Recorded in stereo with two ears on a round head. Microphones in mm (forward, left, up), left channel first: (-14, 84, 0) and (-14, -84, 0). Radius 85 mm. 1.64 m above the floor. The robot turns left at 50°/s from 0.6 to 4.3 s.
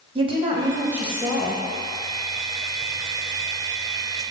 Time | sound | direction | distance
0.1 | a woman speaking | 150° right | 1.4 m